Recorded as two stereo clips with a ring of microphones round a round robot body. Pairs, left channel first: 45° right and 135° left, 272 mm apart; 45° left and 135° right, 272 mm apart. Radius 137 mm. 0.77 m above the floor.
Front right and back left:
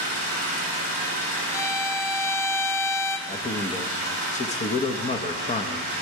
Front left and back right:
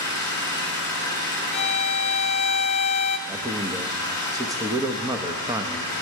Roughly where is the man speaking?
Right.